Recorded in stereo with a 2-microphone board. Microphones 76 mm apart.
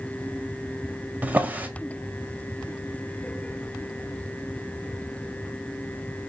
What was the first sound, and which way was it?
A drawer, 20° right (ahead or behind).